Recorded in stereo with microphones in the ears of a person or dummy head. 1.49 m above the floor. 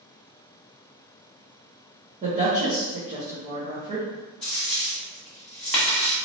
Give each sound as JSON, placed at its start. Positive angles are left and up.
{"t": 2.2, "sound": "a woman speaking", "side_deg": -40, "distance_m": 1.5}
{"t": 4.4, "sound": "a dropped coin", "side_deg": 0, "distance_m": 1.6}